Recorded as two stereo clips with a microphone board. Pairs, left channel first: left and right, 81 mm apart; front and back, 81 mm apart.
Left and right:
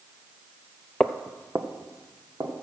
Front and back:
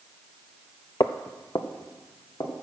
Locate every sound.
1.0 s footsteps: 10° left, 0.5 m; by 2.5 s 40° right, 2.5 m